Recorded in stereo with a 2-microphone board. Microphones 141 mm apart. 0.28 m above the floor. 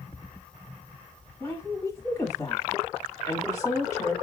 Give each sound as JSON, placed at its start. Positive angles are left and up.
{"t": 1.4, "sound": "a woman speaking", "side_deg": 25, "distance_m": 1.4}